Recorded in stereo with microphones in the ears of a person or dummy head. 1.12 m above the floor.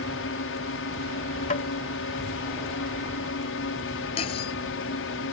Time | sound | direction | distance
0.0 | a drone | 60° left (ahead or behind) | ?
1.5 | tapping | 35° left (ahead or behind) | ?
4.2 | cutlery clinking | 30° left (ahead or behind) | ?